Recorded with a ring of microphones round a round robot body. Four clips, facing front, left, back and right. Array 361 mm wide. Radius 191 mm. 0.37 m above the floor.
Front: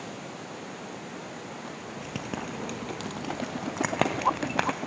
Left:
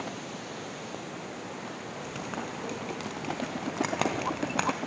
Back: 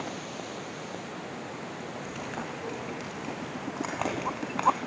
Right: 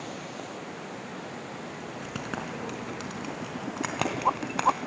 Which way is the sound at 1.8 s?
30° right.